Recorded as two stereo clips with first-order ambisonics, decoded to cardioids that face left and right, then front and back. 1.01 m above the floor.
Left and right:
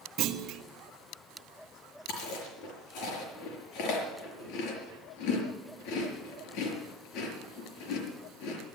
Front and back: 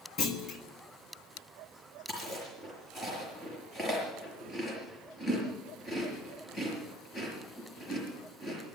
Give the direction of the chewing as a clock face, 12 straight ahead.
10 o'clock.